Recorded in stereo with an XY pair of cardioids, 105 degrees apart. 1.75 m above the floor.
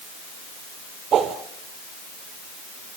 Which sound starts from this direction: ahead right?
A whoosh, at 1.1 s.